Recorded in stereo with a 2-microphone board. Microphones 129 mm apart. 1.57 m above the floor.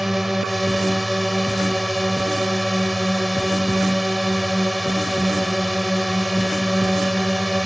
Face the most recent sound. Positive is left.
turn(degrees=0)  # may be behind; listen again after turning